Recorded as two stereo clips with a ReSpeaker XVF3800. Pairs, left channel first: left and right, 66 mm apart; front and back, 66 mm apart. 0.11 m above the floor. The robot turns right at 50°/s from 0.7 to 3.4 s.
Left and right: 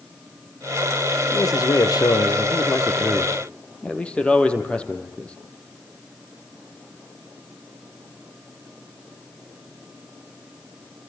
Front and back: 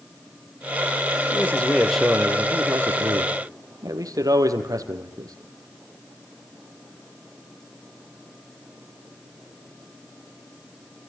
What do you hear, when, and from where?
1.3 s a man speaking: 55° left, 3 m; by 5.4 s 160° left, 3 m